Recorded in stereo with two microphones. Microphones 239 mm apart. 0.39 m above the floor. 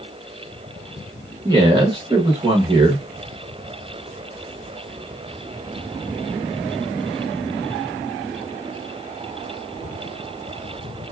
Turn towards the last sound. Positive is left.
turn(degrees=-20)  # may be behind; listen again after turning